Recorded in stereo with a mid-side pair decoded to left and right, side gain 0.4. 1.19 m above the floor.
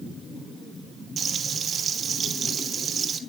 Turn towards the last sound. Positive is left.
turn(degrees=-55)